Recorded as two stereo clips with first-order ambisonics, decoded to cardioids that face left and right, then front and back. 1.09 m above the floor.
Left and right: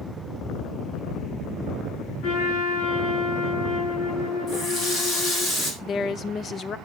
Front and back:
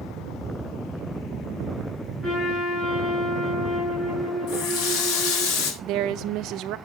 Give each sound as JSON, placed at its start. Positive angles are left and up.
{"t": 2.2, "sound": "a trumpet", "azimuth_deg": 70, "distance_m": 8.5}
{"t": 4.5, "sound": "a running tap", "azimuth_deg": 35, "distance_m": 3.5}
{"t": 5.8, "sound": "a woman speaking", "azimuth_deg": 150, "distance_m": 0.6}